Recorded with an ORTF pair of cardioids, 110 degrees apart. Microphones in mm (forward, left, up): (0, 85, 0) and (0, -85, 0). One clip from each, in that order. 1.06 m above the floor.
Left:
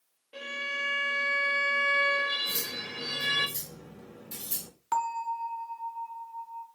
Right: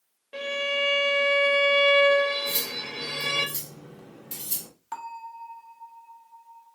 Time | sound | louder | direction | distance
0.3 | a violin | right 6 dB | 35° right | 0.8 m
2.5 | cutlery clinking | right 4 dB | 40° right | 1.1 m
4.9 | a bell | left 8 dB | 25° left | 0.6 m